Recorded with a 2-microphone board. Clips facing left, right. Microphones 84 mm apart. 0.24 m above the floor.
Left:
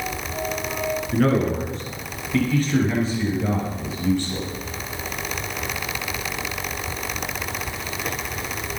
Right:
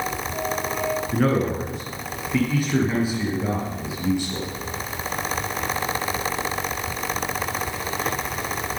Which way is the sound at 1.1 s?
5° right (ahead or behind).